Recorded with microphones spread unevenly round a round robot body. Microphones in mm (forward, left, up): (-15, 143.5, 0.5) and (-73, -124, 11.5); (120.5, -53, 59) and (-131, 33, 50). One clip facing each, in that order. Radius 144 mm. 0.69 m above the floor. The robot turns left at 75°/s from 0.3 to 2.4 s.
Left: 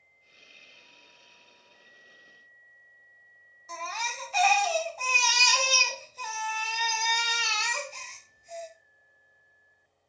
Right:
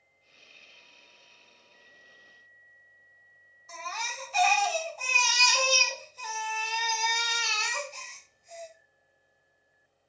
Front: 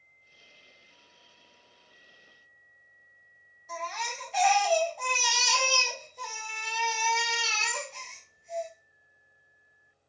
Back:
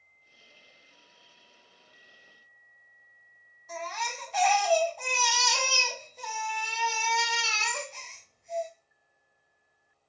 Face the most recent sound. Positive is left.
turn(degrees=70)